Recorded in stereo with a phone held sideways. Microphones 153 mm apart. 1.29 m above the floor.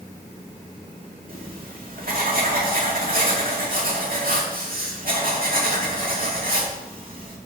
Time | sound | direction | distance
1.3 | writing | 70° right (ahead or behind) | 2 m